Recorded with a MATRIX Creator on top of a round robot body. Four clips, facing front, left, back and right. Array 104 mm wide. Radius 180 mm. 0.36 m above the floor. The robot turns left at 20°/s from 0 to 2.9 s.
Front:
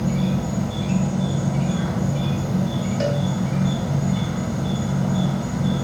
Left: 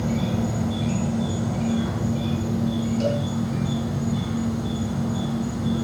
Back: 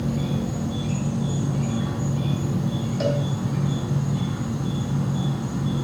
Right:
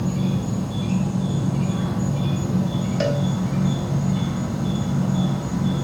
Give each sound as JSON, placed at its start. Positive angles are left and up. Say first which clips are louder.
{"t": 0.0, "sound": "an insect", "louder": "even, front 3 dB", "azimuth_deg": 50, "distance_m": 1.8}
{"t": 3.0, "sound": "a cowbell", "louder": "right 2 dB, even", "azimuth_deg": -75, "distance_m": 1.8}